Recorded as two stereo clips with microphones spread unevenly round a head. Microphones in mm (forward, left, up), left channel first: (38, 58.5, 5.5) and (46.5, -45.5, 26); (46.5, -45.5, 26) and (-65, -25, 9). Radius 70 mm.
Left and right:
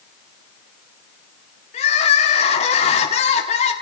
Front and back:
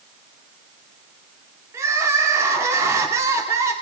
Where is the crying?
100° left, 2.5 m.